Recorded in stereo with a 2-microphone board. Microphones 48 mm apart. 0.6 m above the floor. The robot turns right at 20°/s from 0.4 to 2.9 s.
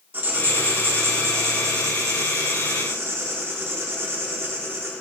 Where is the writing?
125° right, 0.9 m; by 4.9 s 75° right, 0.9 m.